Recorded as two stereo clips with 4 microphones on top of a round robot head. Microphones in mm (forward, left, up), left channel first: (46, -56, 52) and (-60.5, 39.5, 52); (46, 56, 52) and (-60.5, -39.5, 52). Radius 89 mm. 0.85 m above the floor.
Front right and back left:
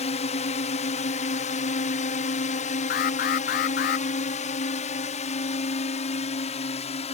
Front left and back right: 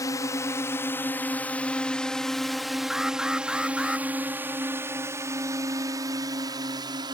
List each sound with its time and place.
0.0 s a drone: 20° right; by 7.2 s 80° right
2.9 s an alarm: 50° right